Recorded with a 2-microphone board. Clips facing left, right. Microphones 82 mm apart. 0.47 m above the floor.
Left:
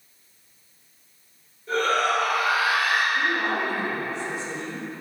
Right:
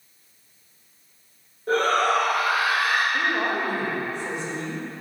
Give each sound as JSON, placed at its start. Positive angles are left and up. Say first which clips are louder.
{"t": 1.7, "sound": "a shout", "louder": "right 2 dB", "side_deg": -55, "distance_m": 2.0}
{"t": 3.1, "sound": "a woman speaking", "louder": "even", "side_deg": -55, "distance_m": 1.4}